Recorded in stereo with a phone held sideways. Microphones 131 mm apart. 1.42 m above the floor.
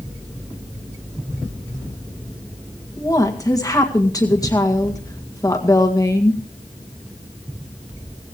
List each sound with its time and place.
3.0 s a woman speaking: 25° left (ahead or behind), 1.9 m